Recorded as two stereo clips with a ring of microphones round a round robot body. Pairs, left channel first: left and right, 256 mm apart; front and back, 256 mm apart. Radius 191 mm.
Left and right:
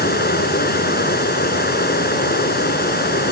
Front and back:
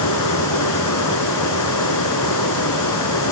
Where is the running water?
35° left.